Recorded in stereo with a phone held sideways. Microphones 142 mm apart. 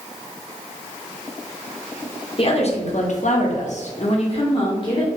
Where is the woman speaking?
45° left (ahead or behind), 0.8 m; by 5.1 s 35° left (ahead or behind), 1.1 m.